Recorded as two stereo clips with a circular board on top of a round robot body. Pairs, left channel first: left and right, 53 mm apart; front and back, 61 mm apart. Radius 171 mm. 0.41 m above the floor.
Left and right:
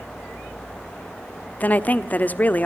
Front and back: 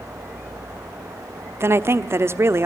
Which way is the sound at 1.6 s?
145° left.